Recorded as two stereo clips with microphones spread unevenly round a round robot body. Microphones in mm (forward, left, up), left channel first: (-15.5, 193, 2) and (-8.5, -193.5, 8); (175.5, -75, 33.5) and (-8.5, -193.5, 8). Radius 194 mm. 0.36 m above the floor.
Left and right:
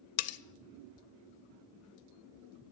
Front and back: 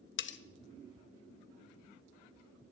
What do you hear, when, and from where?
0.2 s cutlery clinking: 50° left, 0.6 m